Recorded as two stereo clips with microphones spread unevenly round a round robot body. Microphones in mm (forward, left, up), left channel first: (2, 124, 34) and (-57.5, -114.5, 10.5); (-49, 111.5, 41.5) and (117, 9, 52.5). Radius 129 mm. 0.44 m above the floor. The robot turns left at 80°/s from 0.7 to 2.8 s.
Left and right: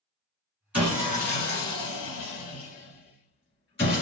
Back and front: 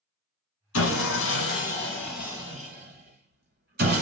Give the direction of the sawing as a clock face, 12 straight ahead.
6 o'clock.